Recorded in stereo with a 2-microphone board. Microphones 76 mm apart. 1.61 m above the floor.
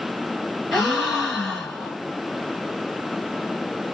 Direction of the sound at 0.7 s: Centre (ahead or behind).